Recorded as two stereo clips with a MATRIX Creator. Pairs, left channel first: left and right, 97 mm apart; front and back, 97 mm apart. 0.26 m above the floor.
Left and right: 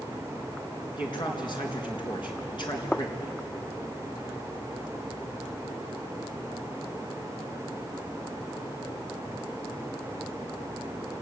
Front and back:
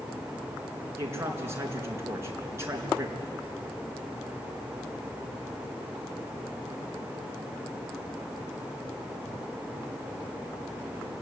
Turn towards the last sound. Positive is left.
turn(degrees=120)